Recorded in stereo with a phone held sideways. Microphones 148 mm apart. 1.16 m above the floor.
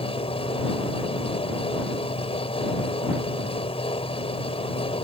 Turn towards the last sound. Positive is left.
turn(degrees=40)  # may be behind; listen again after turning